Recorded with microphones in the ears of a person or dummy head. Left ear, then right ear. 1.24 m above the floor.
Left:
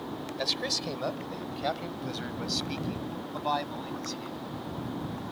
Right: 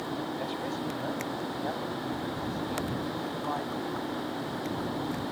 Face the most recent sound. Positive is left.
turn(degrees=80)